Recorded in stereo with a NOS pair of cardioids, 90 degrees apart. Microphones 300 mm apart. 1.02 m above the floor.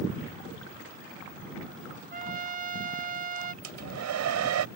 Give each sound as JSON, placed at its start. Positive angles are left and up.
{"t": 2.1, "sound": "a trumpet", "azimuth_deg": -30}
{"t": 3.6, "sound": "a hair dryer", "azimuth_deg": -65}